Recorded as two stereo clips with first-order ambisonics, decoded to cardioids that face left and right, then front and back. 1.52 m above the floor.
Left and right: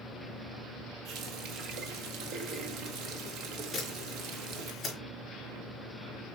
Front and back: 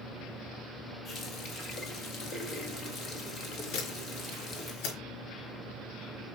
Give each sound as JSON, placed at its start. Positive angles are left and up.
{"t": 1.1, "sound": "a running tap", "azimuth_deg": -55, "distance_m": 1.6}
{"t": 3.7, "sound": "a camera shutter", "azimuth_deg": 5, "distance_m": 4.0}